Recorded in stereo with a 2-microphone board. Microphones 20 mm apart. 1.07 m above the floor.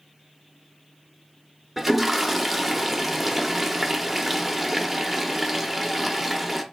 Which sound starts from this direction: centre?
A toilet flushing, at 1.8 s.